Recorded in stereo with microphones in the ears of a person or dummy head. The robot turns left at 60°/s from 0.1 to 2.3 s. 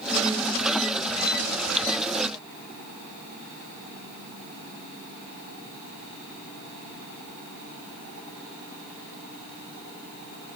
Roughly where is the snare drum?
No snare drum in this recording.